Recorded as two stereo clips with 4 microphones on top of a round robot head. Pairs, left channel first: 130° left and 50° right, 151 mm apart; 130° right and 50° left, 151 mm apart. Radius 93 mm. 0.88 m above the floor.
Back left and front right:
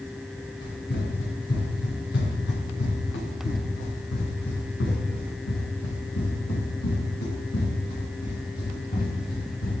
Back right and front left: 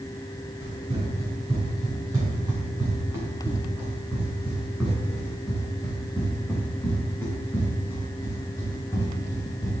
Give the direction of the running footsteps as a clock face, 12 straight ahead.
8 o'clock.